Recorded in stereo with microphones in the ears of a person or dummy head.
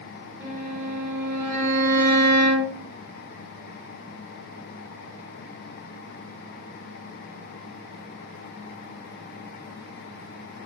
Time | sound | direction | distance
0.4 | a violin | 15° right (ahead or behind) | 1.6 m